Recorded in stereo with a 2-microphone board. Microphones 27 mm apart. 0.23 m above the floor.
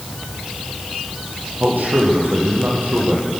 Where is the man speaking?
75° right (ahead or behind), 8 m; by 3.2 s 80° right, 9 m.